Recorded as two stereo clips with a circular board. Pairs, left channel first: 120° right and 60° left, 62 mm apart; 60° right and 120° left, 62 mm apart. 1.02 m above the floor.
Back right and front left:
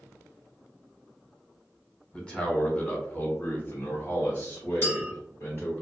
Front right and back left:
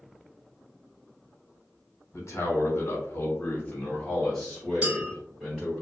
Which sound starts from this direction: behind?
A clink, at 4.8 s.